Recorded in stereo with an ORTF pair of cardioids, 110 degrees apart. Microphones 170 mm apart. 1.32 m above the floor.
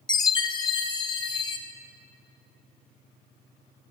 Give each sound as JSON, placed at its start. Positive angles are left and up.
{"t": 0.1, "sound": "a chime", "azimuth_deg": 25, "distance_m": 1.5}